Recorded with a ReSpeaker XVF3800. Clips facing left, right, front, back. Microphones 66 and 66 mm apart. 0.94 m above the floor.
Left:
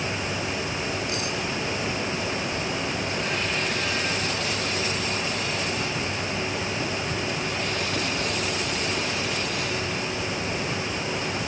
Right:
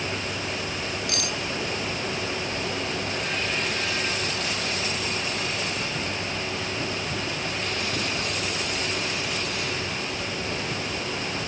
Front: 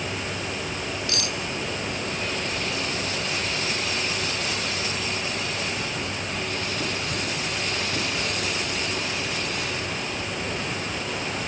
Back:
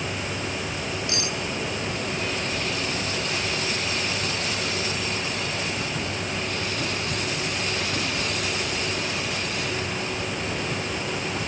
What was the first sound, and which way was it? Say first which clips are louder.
Cutlery clinking: left 1 dB, back 1 dB; 115° right.